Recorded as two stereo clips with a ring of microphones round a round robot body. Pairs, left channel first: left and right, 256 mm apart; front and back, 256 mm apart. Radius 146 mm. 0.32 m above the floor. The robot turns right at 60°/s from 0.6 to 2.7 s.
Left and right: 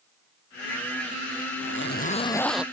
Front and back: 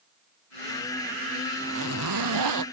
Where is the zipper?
125° left; by 2.6 s 175° right.